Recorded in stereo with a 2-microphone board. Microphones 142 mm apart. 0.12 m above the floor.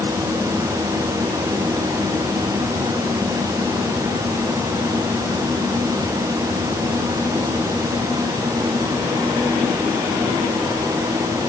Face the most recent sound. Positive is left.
No sound to turn to.